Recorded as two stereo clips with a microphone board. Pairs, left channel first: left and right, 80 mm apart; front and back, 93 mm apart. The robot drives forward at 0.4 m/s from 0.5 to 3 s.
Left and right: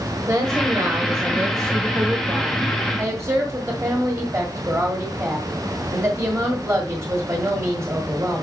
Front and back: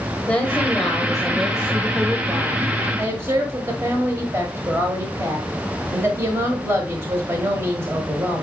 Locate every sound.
0.3 s a woman speaking: 70° right, 1.2 m; by 8.4 s 130° right, 1.4 m